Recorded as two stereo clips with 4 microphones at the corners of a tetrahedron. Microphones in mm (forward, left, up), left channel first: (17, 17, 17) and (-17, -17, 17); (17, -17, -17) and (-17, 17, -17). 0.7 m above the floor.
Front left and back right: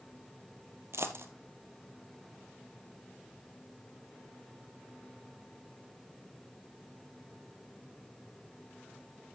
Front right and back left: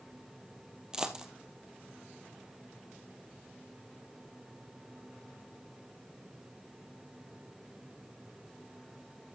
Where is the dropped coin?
150° right, 1.3 m.